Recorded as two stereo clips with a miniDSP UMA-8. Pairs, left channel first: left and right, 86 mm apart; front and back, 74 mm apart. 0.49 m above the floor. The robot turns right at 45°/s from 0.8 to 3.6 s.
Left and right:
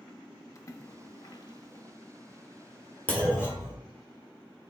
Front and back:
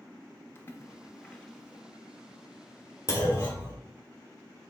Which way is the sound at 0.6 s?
50° left.